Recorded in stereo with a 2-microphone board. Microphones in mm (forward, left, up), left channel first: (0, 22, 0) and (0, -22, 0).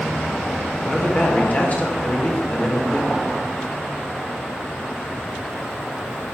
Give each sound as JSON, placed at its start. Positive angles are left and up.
{"t": 0.8, "sound": "a man speaking", "side_deg": 35, "distance_m": 1.5}